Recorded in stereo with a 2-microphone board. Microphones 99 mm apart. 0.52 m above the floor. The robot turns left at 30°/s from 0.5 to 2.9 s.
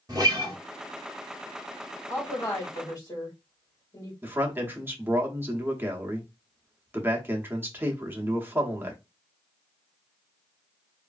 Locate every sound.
0.1 s a guitar: 40° right (ahead or behind), 1.4 m
2.1 s a woman speaking: 30° left (ahead or behind), 1.6 m; by 4.1 s 40° left (ahead or behind), 1.6 m
4.2 s a man speaking: 20° right (ahead or behind), 0.8 m